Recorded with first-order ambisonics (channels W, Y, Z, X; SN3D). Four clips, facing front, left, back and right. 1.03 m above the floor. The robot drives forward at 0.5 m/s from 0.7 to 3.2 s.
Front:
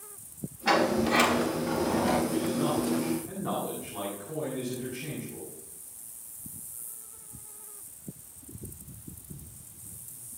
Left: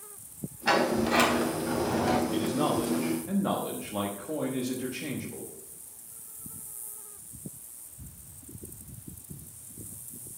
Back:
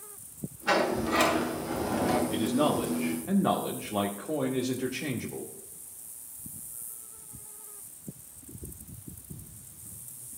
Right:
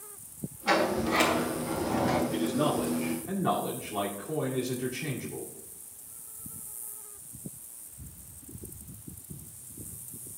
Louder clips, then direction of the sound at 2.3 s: Even, back 2 dB; 155° left.